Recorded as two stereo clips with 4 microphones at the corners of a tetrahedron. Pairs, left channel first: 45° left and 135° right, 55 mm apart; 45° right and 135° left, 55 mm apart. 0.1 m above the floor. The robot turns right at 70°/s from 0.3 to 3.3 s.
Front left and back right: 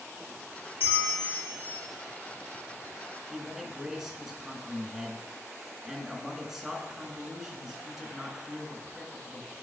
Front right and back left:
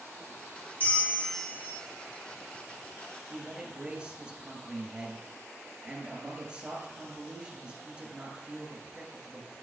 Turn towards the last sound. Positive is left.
turn(degrees=155)